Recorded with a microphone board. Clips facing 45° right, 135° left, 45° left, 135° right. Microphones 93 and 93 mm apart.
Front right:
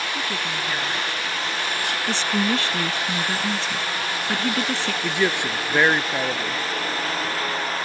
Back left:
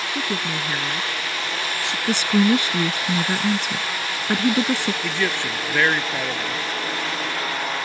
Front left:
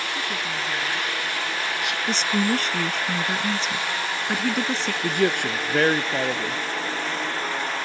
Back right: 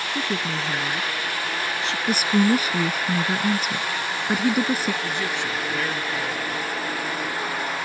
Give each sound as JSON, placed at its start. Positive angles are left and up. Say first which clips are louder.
{"t": 0.1, "sound": "a woman speaking", "louder": "back left 2 dB, back right 2 dB", "azimuth_deg": -170}
{"t": 2.1, "sound": "a woman speaking", "louder": "back left 6 dB, back right 4 dB", "azimuth_deg": 165}
{"t": 5.0, "sound": "a man speaking", "louder": "front right 2 dB, front left 5 dB", "azimuth_deg": 25}